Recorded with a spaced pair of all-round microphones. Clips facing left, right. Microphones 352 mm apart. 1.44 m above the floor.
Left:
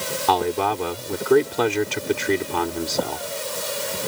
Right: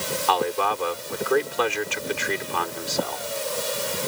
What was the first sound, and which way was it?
A man speaking, 50° left (ahead or behind).